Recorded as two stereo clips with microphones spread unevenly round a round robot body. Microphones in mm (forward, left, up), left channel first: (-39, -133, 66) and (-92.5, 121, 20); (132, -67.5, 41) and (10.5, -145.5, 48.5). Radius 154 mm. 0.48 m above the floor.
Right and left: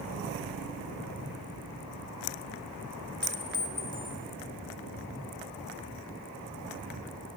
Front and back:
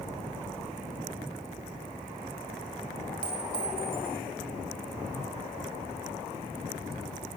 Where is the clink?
155° right, 2.5 m.